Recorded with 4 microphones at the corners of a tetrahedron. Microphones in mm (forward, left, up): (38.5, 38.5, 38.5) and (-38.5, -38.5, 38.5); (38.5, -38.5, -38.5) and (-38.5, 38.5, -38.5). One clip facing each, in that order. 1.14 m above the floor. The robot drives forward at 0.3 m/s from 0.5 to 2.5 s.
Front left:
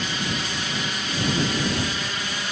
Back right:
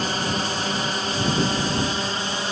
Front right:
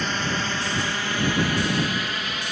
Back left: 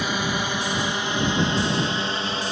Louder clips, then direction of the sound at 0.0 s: Back right 4 dB, back left 1 dB; 150° right.